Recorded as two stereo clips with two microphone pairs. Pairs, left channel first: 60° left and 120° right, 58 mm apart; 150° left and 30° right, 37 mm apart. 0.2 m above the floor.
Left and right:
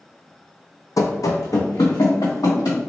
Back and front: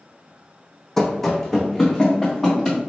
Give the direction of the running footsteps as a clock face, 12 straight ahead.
10 o'clock.